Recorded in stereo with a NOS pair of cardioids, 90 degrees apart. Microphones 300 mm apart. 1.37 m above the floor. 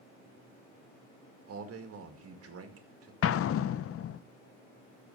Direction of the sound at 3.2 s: 50° left.